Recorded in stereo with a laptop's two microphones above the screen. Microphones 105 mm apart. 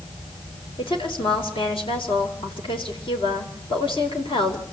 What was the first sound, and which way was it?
A woman speaking, 55° left (ahead or behind).